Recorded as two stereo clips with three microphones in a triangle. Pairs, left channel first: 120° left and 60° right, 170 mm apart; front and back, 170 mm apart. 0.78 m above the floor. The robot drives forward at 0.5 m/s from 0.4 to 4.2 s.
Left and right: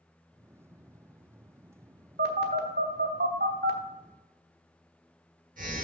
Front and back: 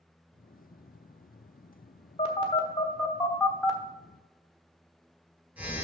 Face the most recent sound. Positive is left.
turn(degrees=-100)